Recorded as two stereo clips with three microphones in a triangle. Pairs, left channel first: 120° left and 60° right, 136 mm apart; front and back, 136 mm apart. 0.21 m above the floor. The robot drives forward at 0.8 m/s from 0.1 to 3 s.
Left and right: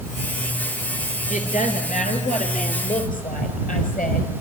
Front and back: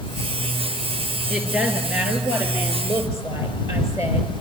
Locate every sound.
1.3 s a woman speaking: 95° left, 4.5 m; by 4.3 s 110° left, 5 m